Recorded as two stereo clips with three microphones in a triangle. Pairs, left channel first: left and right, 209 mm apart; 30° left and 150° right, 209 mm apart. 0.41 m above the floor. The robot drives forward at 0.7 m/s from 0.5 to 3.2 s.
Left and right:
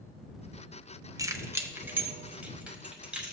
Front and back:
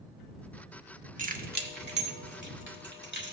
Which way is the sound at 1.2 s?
155° right.